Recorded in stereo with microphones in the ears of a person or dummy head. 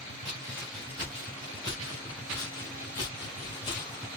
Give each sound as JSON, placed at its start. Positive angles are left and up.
{"t": 0.2, "sound": "footsteps", "side_deg": 5, "distance_m": 1.6}